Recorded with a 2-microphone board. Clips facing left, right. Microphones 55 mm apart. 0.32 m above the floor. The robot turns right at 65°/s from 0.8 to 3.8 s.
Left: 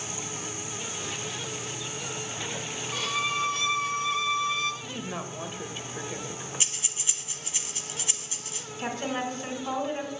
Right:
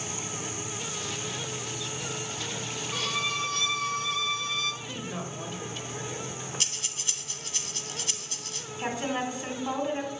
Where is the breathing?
15° left (ahead or behind), 1.0 m.